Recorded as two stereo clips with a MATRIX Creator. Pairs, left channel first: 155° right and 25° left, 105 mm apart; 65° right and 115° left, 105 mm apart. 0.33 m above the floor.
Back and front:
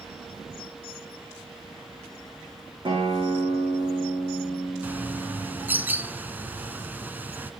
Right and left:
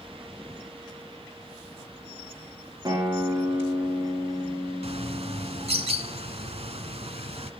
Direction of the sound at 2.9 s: 60° left.